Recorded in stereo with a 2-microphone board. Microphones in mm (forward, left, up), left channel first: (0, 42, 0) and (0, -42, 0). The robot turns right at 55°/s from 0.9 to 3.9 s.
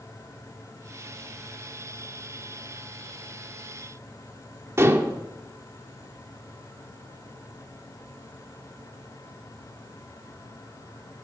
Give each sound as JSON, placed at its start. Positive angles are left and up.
{"t": 4.8, "sound": "dishes clattering", "side_deg": -35, "distance_m": 1.5}